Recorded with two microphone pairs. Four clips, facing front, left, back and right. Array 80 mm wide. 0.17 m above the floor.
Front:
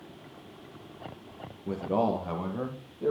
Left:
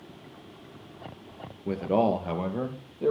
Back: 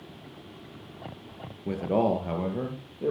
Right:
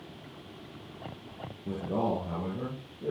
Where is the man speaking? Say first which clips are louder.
Left 6 dB, back 2 dB; 125° left, 2.5 m; by 3.1 s 115° left, 4 m.